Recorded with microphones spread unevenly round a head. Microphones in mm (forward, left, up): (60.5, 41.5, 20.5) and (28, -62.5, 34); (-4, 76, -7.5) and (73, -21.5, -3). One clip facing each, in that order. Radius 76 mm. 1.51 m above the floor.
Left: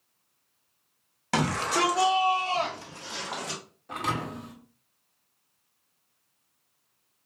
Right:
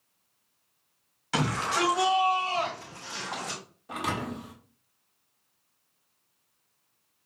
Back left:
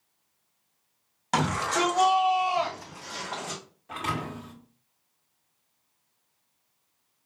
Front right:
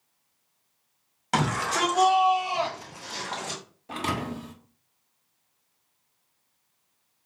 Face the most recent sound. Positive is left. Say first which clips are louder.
# left 1 dB, front right 2 dB
turn(degrees=-35)